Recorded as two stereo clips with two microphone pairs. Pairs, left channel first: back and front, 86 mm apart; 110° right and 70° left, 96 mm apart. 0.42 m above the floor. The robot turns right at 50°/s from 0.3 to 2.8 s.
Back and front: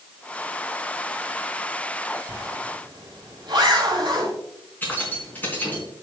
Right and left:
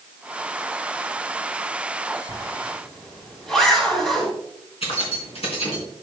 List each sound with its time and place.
2.3 s a zipper: 55° right, 3.5 m; by 4.3 s 30° right, 3.5 m
4.8 s keys jangling: 115° right, 3.5 m